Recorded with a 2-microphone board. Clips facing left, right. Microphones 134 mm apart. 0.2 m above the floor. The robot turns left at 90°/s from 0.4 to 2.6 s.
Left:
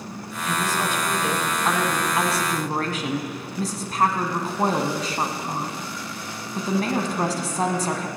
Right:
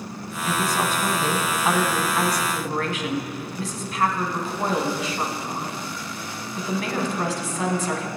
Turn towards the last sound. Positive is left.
turn(degrees=110)